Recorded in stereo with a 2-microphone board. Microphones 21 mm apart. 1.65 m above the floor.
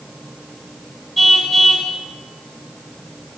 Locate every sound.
1.2 s a car horn: 5° left (ahead or behind), 5.5 m